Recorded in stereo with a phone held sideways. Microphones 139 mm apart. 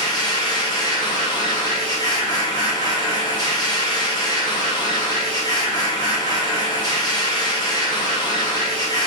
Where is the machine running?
30° left (ahead or behind), 1.2 m.